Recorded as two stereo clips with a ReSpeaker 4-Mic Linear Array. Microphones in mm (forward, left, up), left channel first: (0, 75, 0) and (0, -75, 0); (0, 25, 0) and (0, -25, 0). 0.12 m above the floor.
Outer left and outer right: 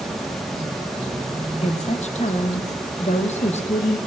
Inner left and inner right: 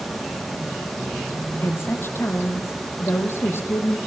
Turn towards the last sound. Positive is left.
turn(degrees=45)  # may be behind; listen again after turning